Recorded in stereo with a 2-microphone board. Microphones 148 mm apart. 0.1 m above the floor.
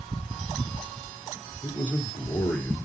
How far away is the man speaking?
About 2 m.